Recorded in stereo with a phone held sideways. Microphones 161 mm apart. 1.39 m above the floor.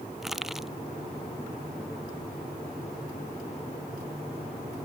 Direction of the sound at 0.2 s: Centre (ahead or behind).